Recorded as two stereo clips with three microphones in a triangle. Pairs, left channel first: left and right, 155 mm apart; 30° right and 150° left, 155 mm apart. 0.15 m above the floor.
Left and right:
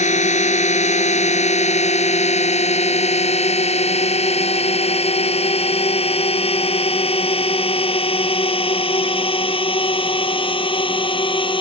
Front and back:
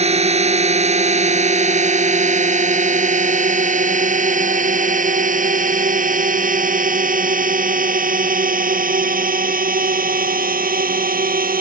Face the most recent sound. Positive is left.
turn(degrees=145)